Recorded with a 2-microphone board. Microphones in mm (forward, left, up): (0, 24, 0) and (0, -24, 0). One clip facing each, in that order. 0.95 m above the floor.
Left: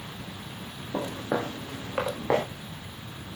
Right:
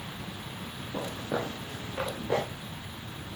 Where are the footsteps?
70° left (ahead or behind), 7.5 m; by 2.5 s 80° left, 7.5 m.